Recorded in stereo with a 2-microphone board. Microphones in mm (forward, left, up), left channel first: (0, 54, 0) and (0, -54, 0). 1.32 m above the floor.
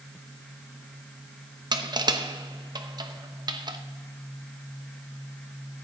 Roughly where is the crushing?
Right.